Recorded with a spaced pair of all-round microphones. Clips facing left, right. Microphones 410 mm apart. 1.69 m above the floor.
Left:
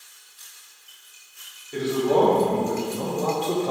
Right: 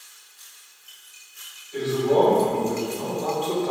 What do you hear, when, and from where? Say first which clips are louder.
1.7 s a man speaking: even; 80° left, 1.7 m; by 3.7 s 45° left (ahead or behind), 0.7 m